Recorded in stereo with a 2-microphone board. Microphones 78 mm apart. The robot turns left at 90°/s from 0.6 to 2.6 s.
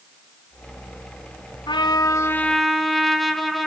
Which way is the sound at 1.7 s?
85° left.